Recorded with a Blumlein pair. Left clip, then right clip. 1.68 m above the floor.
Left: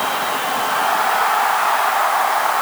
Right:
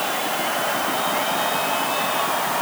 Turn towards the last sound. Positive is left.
No sound to turn to.